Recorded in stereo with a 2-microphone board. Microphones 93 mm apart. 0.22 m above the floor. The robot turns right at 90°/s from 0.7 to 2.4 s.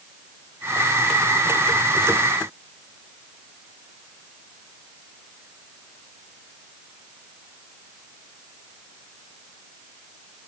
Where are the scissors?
I don't hear scissors.